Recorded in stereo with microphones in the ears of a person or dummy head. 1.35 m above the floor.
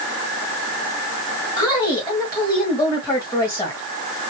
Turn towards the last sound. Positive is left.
turn(degrees=20)  # may be behind; listen again after turning